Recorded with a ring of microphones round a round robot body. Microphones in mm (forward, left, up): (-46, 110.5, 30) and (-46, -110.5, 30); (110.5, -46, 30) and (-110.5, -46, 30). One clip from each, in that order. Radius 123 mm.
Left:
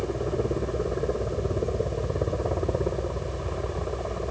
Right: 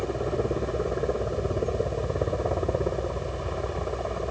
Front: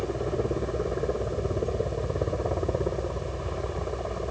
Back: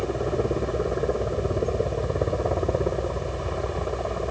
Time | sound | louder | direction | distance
0.0 | a helicopter | even, back 3 dB | 115° right | ?